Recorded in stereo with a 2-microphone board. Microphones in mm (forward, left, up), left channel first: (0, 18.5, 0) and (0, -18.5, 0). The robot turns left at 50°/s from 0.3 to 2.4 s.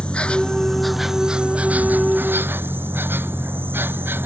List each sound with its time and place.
0.0 s an insect: 30° left; by 4.3 s 75° right